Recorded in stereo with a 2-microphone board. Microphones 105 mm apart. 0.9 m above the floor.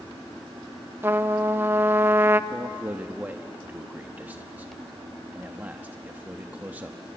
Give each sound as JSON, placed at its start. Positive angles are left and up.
{"t": 1.0, "sound": "a trumpet", "side_deg": -20, "distance_m": 0.7}
{"t": 2.5, "sound": "a man speaking", "side_deg": -15, "distance_m": 0.9}